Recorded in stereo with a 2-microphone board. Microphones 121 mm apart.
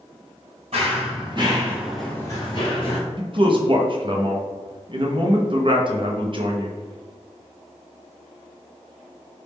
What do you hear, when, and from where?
0.7 s running footsteps: 55° right (ahead or behind), 1.8 m; by 3.0 s 50° left (ahead or behind), 1.7 m
3.2 s a man speaking: 45° right (ahead or behind), 0.6 m